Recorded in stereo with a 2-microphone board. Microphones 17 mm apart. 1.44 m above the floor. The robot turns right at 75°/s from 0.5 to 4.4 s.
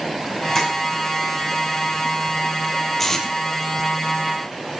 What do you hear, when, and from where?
0.6 s tapping: 10° left (ahead or behind), 8.5 m; by 0.7 s 20° left (ahead or behind), 8.5 m
3.0 s tape being pulled: 15° left (ahead or behind), 3 m; by 3.3 s 35° left (ahead or behind), 3 m